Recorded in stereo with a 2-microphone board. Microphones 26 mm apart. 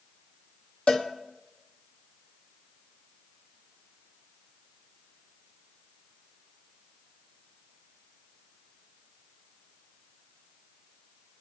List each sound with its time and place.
0.9 s a cowbell: 65° left (ahead or behind), 2 m